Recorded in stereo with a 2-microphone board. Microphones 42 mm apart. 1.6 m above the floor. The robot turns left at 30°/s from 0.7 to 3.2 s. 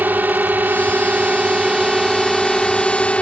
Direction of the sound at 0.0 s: 135° right.